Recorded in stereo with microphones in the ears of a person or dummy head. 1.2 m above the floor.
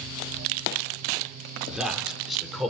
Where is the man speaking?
5° right (ahead or behind), 4.5 m; by 2.7 s centre (ahead or behind), 5.5 m.